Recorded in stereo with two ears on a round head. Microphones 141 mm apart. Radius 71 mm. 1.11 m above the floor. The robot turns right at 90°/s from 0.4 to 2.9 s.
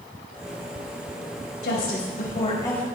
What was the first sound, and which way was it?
A woman speaking, 65° left.